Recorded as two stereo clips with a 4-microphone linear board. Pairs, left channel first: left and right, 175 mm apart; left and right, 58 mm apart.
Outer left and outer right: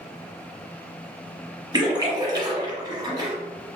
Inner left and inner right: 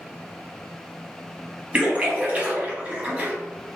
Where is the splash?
25° right (ahead or behind), 1.3 m.